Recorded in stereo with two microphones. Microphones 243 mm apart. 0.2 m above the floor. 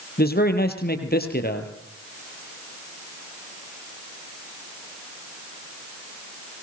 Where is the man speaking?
40° left (ahead or behind), 4 m.